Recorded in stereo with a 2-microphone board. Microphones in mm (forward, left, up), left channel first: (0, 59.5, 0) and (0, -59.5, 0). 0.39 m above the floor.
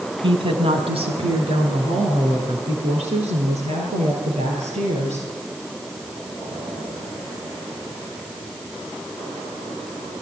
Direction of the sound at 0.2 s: 45° right (ahead or behind).